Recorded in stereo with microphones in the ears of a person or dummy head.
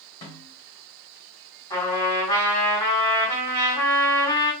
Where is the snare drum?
20° left (ahead or behind), 1.8 m.